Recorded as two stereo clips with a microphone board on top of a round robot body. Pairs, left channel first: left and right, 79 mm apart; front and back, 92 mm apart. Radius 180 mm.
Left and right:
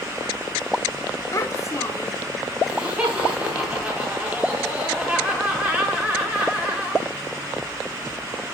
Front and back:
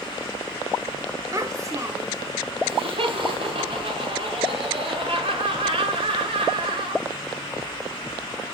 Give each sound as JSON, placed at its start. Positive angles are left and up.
{"t": 1.3, "sound": "a child speaking", "azimuth_deg": 135, "distance_m": 1.4}
{"t": 2.6, "sound": "laughter", "azimuth_deg": -170, "distance_m": 4.5}